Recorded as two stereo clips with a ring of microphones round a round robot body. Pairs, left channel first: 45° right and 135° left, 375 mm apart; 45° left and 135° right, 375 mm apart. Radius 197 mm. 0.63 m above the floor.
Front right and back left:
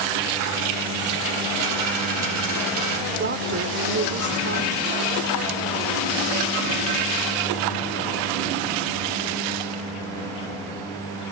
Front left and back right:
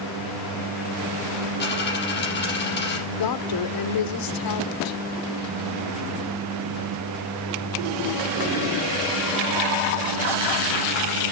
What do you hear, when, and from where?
1.6 s a dropped coin: 110° left, 5.5 m
3.1 s a woman speaking: 75° left, 1.8 m